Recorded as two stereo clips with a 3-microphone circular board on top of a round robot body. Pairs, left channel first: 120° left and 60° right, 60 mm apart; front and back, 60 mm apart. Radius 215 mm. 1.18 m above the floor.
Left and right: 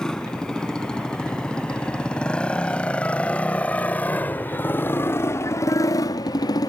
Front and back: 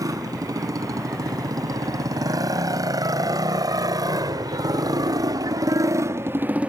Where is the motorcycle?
160° right; by 6.7 s 110° left.